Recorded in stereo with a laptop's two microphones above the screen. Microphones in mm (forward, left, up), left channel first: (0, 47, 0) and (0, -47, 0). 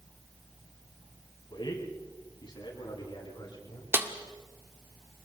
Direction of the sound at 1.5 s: 50° left (ahead or behind).